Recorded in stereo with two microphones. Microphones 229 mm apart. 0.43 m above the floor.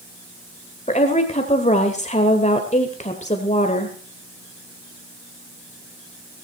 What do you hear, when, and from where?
0.9 s a woman speaking: 30° left (ahead or behind), 1.7 m